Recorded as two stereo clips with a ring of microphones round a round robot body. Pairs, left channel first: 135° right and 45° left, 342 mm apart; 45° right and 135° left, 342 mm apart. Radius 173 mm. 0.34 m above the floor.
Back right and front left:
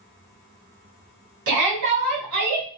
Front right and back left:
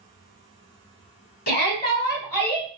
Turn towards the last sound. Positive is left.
turn(degrees=10)